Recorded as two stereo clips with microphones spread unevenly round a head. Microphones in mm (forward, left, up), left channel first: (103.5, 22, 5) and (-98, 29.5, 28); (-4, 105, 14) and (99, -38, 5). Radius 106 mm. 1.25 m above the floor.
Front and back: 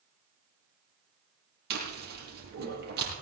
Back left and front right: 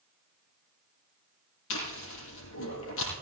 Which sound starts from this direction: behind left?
Chewing, at 1.7 s.